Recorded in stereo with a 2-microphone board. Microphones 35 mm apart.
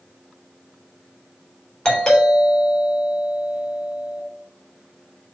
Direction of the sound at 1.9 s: 15° left (ahead or behind).